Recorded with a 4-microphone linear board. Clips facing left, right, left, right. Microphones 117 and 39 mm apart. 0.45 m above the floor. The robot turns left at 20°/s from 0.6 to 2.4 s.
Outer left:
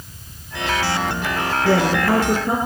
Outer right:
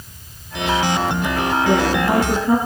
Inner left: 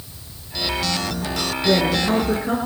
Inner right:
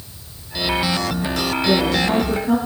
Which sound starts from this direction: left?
A woman speaking, at 1.6 s.